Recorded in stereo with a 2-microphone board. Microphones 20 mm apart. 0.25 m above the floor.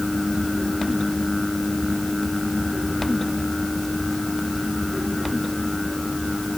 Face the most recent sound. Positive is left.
No sound to turn to.